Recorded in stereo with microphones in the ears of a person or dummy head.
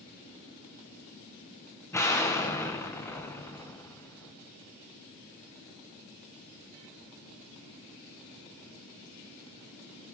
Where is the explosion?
15° left (ahead or behind), 1.7 m.